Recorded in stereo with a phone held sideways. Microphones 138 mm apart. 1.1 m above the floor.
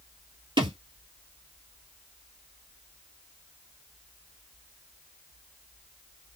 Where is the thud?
35° right (ahead or behind), 1.3 m.